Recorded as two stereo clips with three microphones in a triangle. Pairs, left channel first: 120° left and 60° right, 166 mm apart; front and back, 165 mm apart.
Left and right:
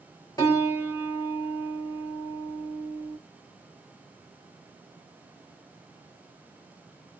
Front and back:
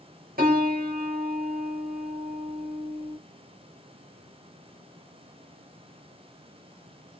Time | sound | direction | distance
0.4 | a piano | 175° right | 1.4 m